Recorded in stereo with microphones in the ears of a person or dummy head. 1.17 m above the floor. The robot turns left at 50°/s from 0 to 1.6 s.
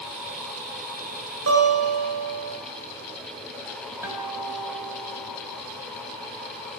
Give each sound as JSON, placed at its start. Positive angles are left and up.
{"t": 1.5, "sound": "a guitar", "side_deg": -85, "distance_m": 4.0}
{"t": 4.0, "sound": "a guitar", "side_deg": -10, "distance_m": 3.0}